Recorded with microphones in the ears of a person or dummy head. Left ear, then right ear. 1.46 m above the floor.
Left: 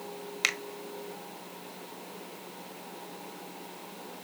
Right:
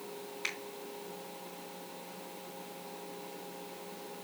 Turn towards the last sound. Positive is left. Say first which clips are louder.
# left 10 dB
turn(degrees=80)